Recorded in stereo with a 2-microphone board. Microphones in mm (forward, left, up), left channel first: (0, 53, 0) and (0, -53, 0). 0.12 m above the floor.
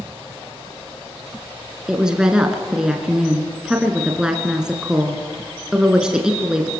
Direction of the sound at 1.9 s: 5° right (ahead or behind).